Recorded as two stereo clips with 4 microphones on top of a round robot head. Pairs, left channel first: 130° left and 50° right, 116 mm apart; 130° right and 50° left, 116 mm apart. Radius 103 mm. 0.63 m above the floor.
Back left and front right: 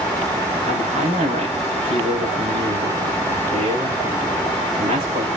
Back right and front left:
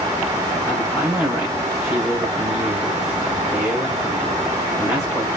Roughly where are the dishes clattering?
I don't hear dishes clattering.